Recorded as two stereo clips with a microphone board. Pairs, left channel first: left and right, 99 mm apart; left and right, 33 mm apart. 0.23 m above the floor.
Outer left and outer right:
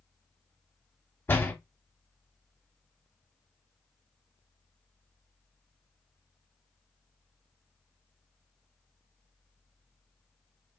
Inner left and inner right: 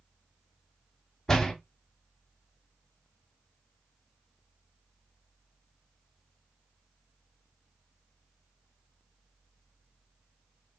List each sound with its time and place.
1.3 s a door slam: 20° left (ahead or behind), 0.9 m